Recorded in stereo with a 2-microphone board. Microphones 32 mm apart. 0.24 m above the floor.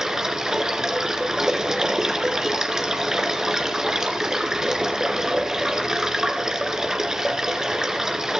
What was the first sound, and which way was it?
Running water, 20° right (ahead or behind).